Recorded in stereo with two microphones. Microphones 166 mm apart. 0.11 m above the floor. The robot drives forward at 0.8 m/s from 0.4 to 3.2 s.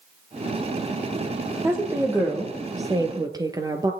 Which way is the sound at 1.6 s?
15° right (ahead or behind).